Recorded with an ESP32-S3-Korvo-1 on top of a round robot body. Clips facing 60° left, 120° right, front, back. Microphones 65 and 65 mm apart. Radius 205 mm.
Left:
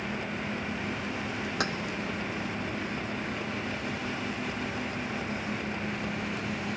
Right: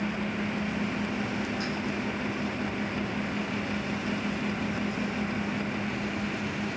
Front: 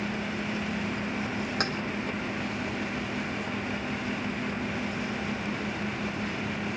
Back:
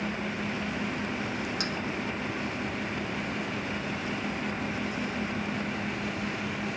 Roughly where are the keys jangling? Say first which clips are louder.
Left 2 dB, front 3 dB; ahead left.